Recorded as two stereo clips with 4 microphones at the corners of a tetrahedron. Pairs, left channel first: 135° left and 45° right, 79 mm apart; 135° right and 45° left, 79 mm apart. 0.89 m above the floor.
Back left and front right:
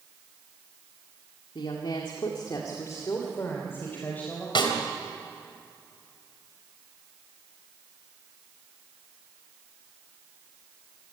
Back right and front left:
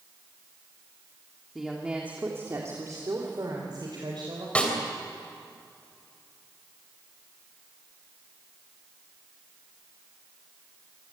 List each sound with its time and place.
1.6 s a woman speaking: 135° left, 2 m; by 4.5 s 65° left, 4 m
4.5 s a snare drum: 150° left, 3 m